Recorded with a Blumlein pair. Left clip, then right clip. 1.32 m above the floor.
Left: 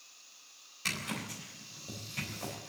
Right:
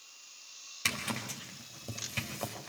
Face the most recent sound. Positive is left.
turn(degrees=-65)